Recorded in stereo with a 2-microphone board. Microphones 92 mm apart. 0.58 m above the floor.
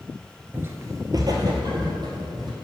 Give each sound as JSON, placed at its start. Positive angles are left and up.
{"t": 0.5, "sound": "footsteps", "side_deg": -20, "distance_m": 0.5}